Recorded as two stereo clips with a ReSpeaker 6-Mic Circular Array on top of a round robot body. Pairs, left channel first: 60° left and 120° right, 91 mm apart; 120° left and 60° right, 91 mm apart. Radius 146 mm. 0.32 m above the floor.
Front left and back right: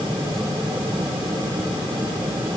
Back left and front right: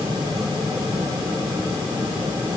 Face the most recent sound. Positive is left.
No sound to turn to.